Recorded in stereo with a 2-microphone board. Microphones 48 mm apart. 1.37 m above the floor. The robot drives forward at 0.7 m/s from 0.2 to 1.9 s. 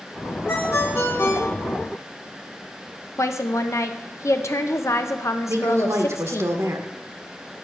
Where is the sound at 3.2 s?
75° left (ahead or behind), 1.0 m.